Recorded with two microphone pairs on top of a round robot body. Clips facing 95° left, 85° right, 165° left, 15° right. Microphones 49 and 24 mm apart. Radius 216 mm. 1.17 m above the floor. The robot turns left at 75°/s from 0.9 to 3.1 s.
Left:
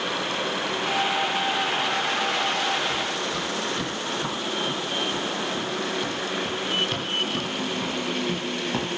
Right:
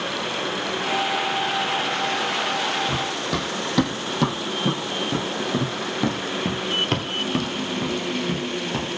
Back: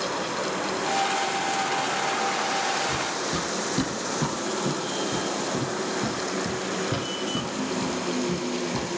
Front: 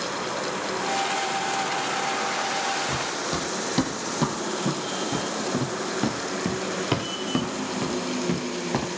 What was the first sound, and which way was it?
Running footsteps, 75° right.